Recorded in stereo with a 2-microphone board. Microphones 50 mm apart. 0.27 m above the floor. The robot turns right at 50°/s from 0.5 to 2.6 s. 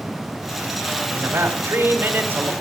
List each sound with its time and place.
1.1 s a man speaking: 115° right, 3.5 m; by 2.5 s 45° right, 3.5 m